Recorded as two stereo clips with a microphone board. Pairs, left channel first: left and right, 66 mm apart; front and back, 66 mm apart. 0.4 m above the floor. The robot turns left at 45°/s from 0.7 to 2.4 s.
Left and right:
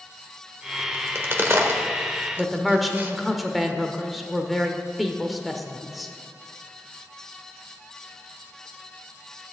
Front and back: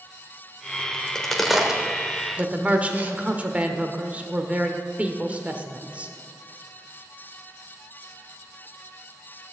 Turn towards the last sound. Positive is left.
turn(degrees=180)